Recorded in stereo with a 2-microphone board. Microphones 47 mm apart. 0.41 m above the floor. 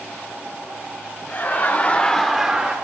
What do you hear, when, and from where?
1.3 s laughter: 45° left (ahead or behind), 1.6 m; by 2.8 s 25° right (ahead or behind), 1.0 m